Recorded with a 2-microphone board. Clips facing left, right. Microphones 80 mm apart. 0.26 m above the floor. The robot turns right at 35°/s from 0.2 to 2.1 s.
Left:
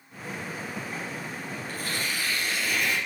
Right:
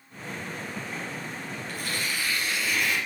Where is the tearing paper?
35° left (ahead or behind), 5 m; by 3.0 s 50° left (ahead or behind), 5 m.